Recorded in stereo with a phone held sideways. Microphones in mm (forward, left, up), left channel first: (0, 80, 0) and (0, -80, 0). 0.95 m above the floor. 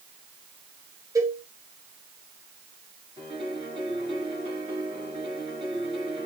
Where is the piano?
35° right (ahead or behind), 9.5 m.